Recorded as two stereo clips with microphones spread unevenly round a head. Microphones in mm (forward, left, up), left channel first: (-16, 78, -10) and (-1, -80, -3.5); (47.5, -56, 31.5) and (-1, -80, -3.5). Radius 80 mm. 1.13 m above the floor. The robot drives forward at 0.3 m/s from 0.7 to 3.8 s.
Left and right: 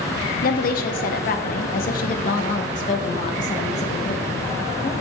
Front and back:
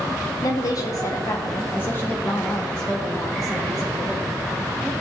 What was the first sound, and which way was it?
A woman speaking, 90° left.